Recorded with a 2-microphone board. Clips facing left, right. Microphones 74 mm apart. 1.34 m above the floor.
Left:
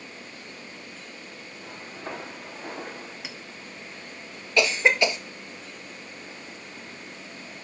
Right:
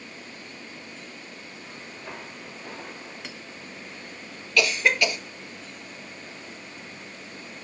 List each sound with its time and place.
1.6 s footsteps: 75° left (ahead or behind), 4.5 m; by 3.1 s 65° left (ahead or behind), 4.5 m
3.2 s a clink: 5° left (ahead or behind), 1.0 m
4.6 s a cough: 25° left (ahead or behind), 1.6 m